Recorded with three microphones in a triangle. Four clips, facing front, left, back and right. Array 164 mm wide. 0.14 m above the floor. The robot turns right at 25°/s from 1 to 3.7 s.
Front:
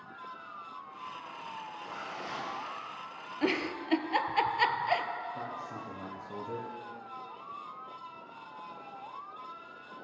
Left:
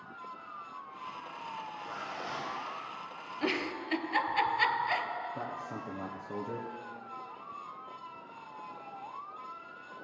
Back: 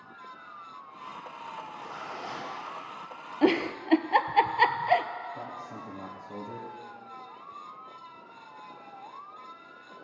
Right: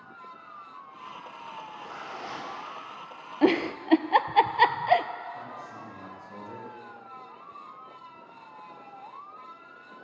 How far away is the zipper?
About 6.5 m.